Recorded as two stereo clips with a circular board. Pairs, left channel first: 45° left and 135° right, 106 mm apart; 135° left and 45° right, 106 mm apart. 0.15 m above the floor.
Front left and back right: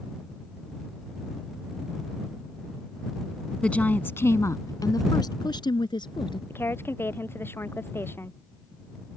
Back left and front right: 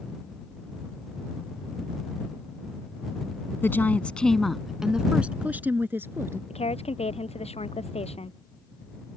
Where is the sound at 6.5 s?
115° left.